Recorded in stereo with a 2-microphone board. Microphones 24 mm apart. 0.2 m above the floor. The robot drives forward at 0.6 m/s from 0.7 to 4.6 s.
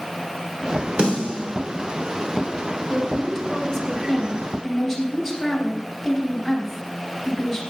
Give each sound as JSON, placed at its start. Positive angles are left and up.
{"t": 1.0, "sound": "a snare drum", "side_deg": -40, "distance_m": 3.0}
{"t": 2.9, "sound": "a woman speaking", "side_deg": 10, "distance_m": 2.0}